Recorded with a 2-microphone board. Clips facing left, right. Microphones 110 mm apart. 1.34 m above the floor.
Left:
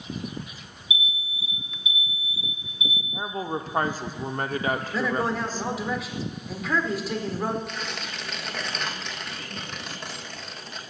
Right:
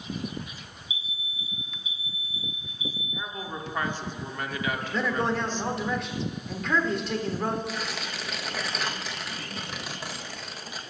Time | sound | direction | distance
0.9 | an alarm | 65° left (ahead or behind) | 0.8 m
3.1 | a woman speaking | 40° left (ahead or behind) | 0.6 m
4.9 | a man speaking | 5° left (ahead or behind) | 1.3 m
7.7 | tearing paper | 5° right (ahead or behind) | 0.8 m